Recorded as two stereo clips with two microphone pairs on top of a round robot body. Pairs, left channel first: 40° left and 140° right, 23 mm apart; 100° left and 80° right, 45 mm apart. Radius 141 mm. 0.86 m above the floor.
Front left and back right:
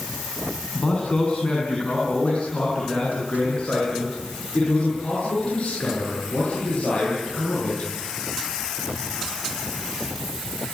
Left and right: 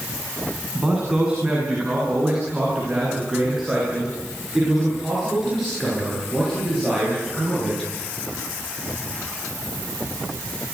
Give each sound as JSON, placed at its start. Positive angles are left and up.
{"t": 0.8, "sound": "a man speaking", "azimuth_deg": -5, "distance_m": 8.0}